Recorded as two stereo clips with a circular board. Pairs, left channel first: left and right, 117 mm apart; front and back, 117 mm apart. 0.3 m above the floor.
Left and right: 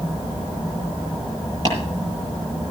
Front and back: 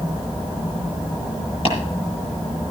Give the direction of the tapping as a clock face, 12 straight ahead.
1 o'clock.